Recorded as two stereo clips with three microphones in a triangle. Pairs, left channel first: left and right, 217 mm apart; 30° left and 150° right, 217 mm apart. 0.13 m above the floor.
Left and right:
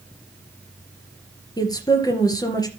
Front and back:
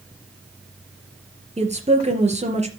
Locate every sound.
1.6 s a woman speaking: 160° left, 3 m